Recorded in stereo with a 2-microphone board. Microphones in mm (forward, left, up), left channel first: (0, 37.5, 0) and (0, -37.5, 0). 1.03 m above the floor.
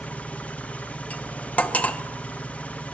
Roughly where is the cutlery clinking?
Left.